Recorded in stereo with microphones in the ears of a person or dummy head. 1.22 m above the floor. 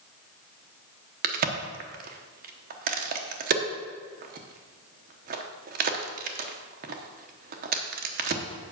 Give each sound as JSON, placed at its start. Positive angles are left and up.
{"t": 1.2, "sound": "a crack", "side_deg": -40, "distance_m": 0.9}